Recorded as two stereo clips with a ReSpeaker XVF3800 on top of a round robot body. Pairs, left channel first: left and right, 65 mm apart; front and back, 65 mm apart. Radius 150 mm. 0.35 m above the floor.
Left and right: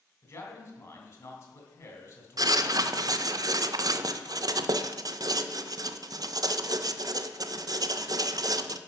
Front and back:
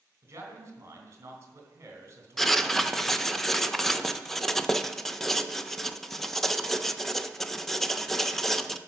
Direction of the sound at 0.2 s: 130° left.